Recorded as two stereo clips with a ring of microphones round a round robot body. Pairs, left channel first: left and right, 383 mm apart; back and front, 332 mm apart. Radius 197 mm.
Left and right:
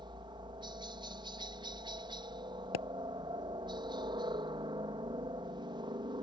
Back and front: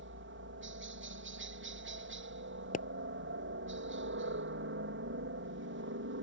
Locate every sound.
0.0 s a helicopter: 20° right
2.7 s a pop: 115° left